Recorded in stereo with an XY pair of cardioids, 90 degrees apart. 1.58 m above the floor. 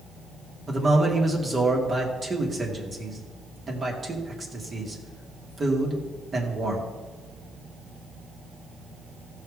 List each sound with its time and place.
0.7 s a man speaking: 40° right, 3 m